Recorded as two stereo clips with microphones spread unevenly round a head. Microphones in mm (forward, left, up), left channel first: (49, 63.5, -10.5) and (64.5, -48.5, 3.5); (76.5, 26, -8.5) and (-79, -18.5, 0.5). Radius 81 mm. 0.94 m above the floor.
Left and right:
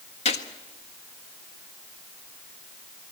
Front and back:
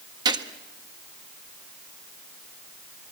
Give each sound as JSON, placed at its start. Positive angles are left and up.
{"t": 0.2, "sound": "a gunshot", "azimuth_deg": 130, "distance_m": 1.5}